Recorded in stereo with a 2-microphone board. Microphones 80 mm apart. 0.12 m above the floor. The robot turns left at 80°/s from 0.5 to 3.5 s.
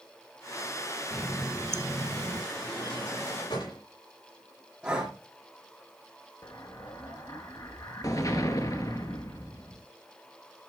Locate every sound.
1.1 s a running tap: 10° left, 1.3 m; by 2.4 s 95° right, 1.3 m
2.5 s a drawer: 150° left, 6 m; by 3.8 s 70° left, 6 m
4.8 s breathing: 15° right (ahead or behind), 4.5 m
6.4 s an explosion: 45° left (ahead or behind), 1.2 m